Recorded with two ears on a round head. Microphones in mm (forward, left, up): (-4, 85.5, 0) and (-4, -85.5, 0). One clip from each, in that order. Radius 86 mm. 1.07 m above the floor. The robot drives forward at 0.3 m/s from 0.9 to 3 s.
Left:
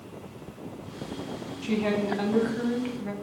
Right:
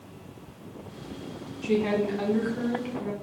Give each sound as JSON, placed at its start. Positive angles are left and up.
{"t": 1.6, "sound": "a woman speaking", "side_deg": 5, "distance_m": 0.8}